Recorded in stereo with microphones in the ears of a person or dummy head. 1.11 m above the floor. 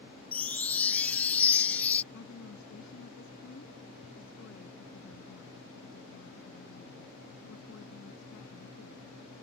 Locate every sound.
0.3 s a chime: 15° left (ahead or behind)
2.1 s a woman speaking: 80° left